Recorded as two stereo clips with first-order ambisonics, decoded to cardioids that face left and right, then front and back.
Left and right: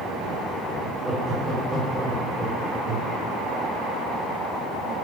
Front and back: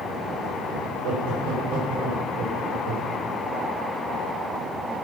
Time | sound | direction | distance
0.8 | laughter | 175° right | 7 m